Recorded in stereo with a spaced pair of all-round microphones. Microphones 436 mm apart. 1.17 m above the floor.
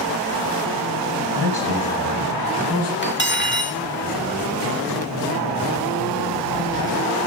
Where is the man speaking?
60° right (ahead or behind), 9 m; by 2.9 s 55° right (ahead or behind), 7 m.